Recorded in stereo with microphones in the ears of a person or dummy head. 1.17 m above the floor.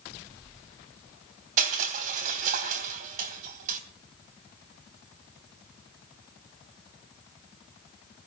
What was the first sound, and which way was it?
Crushing, 45° right (ahead or behind).